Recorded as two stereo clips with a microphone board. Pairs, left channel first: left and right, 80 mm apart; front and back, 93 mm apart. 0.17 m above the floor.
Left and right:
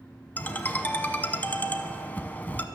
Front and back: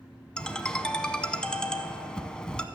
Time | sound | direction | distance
0.4 | a ringtone | 65° left | 0.6 m